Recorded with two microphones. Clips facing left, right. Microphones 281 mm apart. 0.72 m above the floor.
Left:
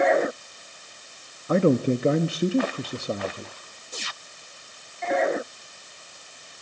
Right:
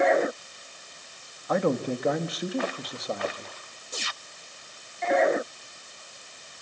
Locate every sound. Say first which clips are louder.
1.5 s a man speaking: left 6 dB; 30° left (ahead or behind), 1.1 m